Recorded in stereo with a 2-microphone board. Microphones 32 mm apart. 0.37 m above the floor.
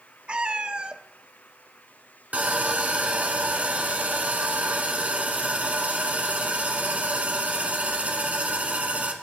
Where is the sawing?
50° right (ahead or behind), 1.5 m.